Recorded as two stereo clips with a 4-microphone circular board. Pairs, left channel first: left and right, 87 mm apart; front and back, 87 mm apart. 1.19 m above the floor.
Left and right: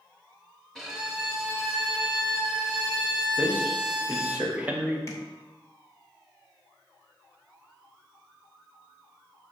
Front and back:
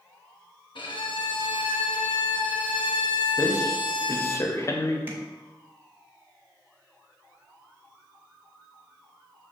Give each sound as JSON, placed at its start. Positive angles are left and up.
{"t": 0.8, "sound": "a violin", "azimuth_deg": 0, "distance_m": 0.9}
{"t": 3.4, "sound": "a man speaking", "azimuth_deg": -25, "distance_m": 0.6}
{"t": 5.1, "sound": "tapping", "azimuth_deg": 125, "distance_m": 1.1}